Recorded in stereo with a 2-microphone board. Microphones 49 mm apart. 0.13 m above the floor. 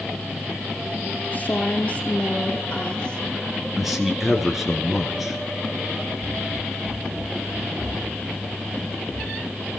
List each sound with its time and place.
1.3 s a woman speaking: 35° left (ahead or behind), 3 m; by 3.3 s 20° left (ahead or behind), 4 m
3.8 s a man speaking: 5° right (ahead or behind), 2.5 m
6.2 s running footsteps: 65° right (ahead or behind), 0.5 m; by 9.6 s 45° right (ahead or behind), 3 m